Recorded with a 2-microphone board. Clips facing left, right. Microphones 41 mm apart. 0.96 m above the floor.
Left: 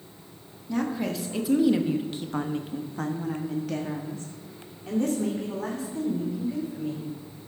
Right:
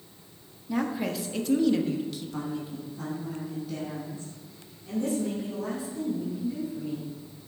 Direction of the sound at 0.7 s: 10° right (ahead or behind).